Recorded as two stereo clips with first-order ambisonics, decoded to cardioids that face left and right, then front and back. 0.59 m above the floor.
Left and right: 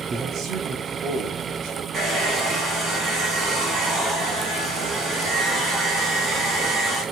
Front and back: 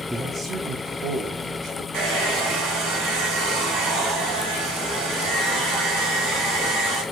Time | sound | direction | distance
0.1 | a man speaking | 100° right | 0.6 m
1.9 | a hair dryer | 165° right | 2.5 m